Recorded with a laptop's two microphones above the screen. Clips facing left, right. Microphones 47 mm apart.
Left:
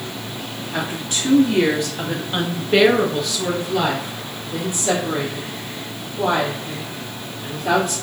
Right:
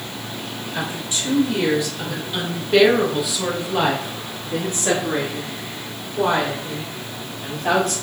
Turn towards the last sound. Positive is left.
turn(degrees=-70)  # may be behind; listen again after turning